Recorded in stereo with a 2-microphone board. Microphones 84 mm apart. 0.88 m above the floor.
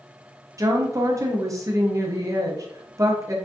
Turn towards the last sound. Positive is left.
turn(degrees=-40)  # may be behind; listen again after turning